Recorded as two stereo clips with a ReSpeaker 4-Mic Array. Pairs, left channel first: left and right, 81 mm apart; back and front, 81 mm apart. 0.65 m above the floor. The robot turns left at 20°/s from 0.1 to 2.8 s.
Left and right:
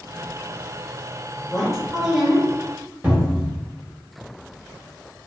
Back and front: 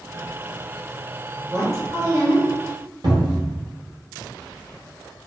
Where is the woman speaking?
5° left, 1.0 m; by 2.5 s 15° right, 1.0 m.